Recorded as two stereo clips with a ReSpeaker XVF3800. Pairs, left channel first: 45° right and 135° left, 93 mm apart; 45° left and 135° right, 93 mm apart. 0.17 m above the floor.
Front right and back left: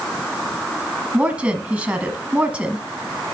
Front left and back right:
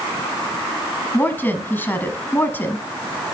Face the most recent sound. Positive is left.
turn(degrees=80)